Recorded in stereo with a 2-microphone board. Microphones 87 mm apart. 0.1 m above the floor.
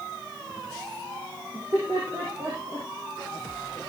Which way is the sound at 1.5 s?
30° right (ahead or behind).